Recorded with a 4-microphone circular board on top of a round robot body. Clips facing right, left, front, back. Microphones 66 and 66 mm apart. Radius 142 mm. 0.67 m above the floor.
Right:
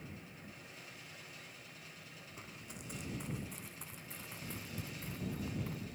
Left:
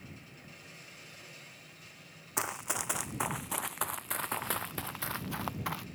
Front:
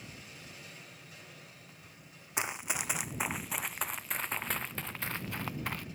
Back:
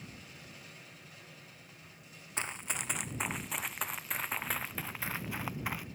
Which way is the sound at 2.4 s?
75° left.